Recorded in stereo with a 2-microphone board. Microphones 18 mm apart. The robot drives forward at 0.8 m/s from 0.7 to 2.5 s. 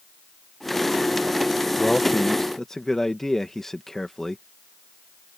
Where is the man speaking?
35° left (ahead or behind); by 4.4 s 25° left (ahead or behind).